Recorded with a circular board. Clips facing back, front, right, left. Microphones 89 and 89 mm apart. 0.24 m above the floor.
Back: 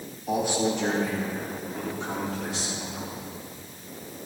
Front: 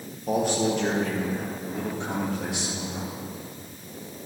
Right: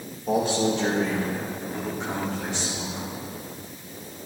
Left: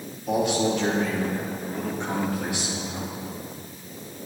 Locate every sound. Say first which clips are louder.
0.3 s a man speaking: front 1 dB, even; 40° right, 4.5 m; by 3.1 s 20° left, 4 m